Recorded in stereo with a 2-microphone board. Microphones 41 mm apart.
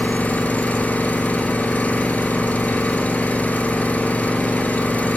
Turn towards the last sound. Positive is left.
turn(degrees=40)  # may be behind; listen again after turning